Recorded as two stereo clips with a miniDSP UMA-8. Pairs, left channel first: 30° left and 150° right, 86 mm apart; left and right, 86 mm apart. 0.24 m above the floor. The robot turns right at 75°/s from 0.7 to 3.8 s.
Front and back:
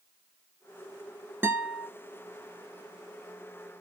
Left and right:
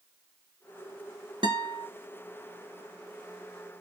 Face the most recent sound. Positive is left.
turn(degrees=90)